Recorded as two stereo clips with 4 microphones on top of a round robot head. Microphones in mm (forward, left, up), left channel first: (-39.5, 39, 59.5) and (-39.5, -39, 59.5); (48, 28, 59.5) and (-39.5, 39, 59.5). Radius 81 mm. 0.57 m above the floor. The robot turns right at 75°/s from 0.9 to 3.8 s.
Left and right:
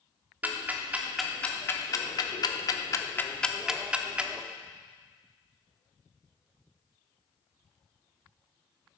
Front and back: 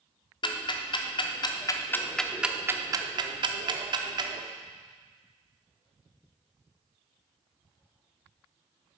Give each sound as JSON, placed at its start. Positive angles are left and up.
{"t": 0.4, "sound": "ticking", "azimuth_deg": -20, "distance_m": 1.0}